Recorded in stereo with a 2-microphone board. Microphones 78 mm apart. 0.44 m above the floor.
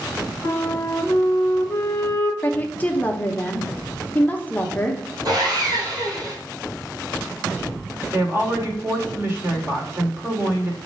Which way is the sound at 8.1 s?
35° right (ahead or behind).